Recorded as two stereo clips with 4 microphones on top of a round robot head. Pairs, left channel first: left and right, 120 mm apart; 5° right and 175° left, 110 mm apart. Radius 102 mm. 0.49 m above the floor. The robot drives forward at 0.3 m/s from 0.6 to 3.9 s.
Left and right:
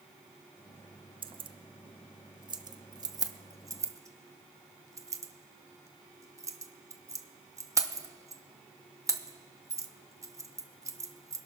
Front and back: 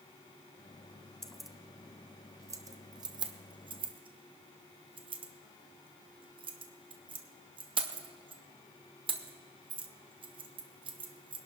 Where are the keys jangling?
90° right, 0.6 m; by 11.4 s 150° right, 1.0 m.